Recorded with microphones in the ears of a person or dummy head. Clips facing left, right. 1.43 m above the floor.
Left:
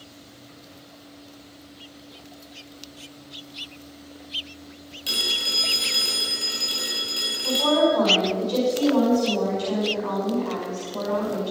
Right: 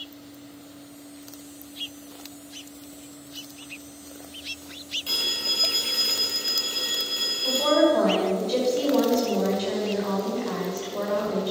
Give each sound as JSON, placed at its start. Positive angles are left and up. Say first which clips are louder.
{"t": 5.1, "sound": "a phone ringing", "louder": "left 2 dB", "side_deg": 20, "distance_m": 4.0}
{"t": 7.4, "sound": "a woman speaking", "louder": "even", "side_deg": -20, "distance_m": 5.5}